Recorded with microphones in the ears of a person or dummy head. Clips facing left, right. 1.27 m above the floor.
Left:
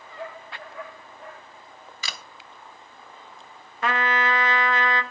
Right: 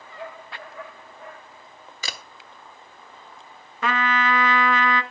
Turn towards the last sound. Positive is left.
turn(degrees=-70)  # may be behind; listen again after turning